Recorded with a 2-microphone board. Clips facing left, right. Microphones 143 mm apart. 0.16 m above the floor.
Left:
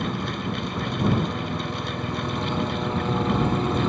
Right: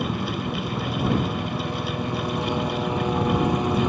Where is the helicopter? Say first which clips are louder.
Right 1 dB; 15° right (ahead or behind).